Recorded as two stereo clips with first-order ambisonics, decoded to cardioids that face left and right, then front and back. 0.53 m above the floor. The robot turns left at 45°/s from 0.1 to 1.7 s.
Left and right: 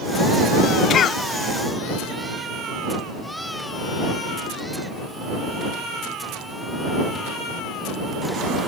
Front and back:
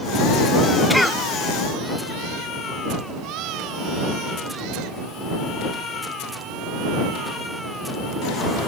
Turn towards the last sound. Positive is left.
turn(degrees=45)